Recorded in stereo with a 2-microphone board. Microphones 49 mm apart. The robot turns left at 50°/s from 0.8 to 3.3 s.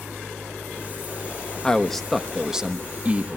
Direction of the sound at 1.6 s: 25° left.